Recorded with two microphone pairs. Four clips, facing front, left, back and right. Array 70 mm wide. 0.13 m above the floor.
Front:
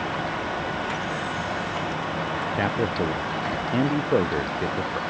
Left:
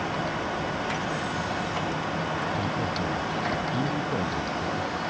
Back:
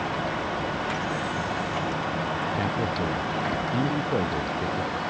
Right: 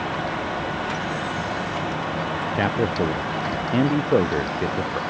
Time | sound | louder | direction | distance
2.5 | a man speaking | right 6 dB, front 2 dB | 70° right | ?